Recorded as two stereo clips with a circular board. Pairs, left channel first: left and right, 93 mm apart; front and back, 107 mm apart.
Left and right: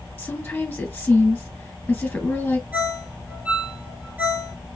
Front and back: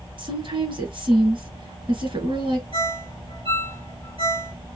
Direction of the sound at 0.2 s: 160° left.